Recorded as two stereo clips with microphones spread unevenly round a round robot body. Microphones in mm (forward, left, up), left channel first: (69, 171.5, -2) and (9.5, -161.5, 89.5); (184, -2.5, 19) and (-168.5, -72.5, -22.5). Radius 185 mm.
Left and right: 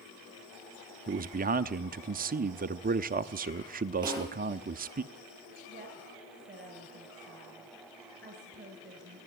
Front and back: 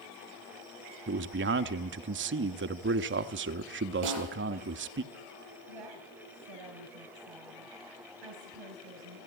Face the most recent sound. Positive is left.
turn(degrees=-170)